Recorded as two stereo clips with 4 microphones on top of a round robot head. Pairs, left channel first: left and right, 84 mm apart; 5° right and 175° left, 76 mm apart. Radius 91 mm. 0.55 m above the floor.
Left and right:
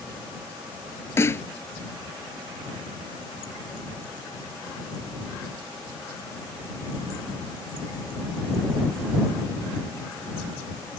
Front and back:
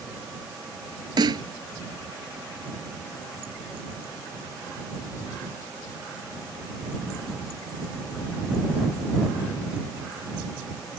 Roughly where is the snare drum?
Behind left.